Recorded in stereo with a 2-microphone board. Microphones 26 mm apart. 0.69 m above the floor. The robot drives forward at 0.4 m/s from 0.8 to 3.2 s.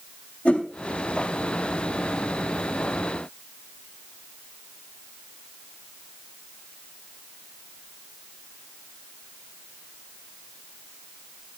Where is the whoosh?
55° left (ahead or behind), 3 m.